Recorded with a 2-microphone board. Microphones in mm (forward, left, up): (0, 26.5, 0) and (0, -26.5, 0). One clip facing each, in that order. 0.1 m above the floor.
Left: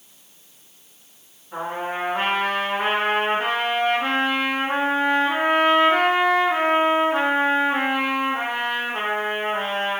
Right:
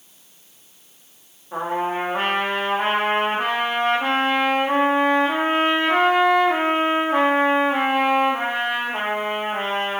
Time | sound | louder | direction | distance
1.5 | a trumpet | right 4 dB | 40° right (ahead or behind) | 1.0 m